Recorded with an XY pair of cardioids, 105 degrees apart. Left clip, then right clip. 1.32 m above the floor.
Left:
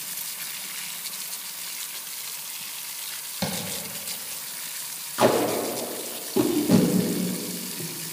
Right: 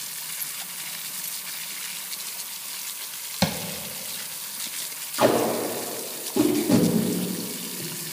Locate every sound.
3.4 s tapping: 40° right, 1.1 m
5.2 s tape being pulled: 20° left, 1.7 m